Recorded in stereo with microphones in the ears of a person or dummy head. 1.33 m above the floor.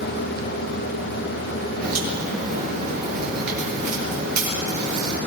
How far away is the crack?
About 6 m.